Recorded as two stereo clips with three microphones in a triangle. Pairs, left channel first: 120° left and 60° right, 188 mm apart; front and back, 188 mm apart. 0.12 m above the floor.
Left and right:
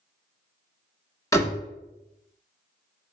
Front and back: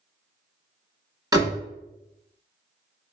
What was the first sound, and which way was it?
A door slam, 160° left.